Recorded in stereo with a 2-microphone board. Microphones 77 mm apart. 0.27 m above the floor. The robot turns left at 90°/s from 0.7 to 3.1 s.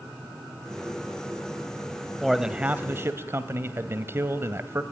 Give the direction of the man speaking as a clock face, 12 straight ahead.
12 o'clock.